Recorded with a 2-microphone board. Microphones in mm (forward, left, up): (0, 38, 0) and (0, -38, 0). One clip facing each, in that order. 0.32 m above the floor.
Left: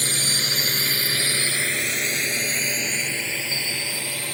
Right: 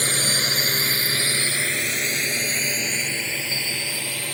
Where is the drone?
50° right (ahead or behind); by 4.3 s 20° left (ahead or behind).